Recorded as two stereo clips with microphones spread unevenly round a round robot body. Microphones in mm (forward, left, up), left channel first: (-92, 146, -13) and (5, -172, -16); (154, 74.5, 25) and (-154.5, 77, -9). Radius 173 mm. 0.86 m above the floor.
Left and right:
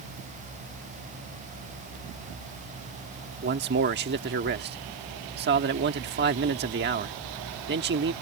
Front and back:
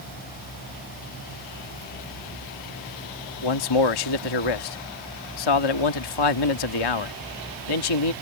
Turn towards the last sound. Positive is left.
turn(degrees=-10)